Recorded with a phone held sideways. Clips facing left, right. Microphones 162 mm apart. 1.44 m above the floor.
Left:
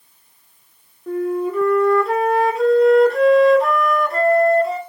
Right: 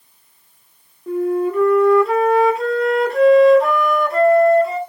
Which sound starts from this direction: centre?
A flute, at 1.1 s.